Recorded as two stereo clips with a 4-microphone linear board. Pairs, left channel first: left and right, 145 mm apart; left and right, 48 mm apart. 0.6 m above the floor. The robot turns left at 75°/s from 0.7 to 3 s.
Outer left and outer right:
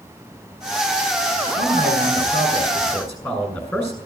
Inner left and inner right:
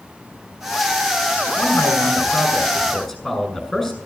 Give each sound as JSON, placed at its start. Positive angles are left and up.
{"t": 1.6, "sound": "a man speaking", "azimuth_deg": 120, "distance_m": 6.5}